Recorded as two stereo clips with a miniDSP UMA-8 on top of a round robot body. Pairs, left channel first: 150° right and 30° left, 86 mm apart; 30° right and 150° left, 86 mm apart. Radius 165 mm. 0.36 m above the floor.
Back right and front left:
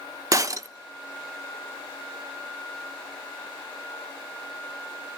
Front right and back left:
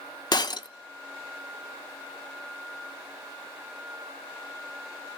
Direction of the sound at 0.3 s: 10° right.